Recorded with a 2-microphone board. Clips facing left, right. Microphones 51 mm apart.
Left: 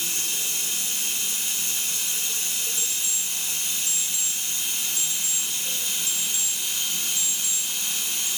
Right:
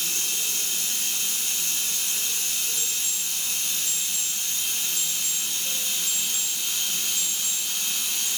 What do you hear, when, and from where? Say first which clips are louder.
0.0 s running water: even; 15° left (ahead or behind), 1.5 m
2.8 s an alarm clock: even; 15° left (ahead or behind), 0.6 m